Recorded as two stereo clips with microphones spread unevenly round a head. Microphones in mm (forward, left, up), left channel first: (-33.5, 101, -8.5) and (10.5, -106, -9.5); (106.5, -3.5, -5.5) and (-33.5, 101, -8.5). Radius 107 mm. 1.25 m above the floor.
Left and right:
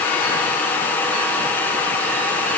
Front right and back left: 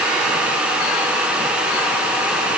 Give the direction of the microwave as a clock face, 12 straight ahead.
I don't hear a microwave.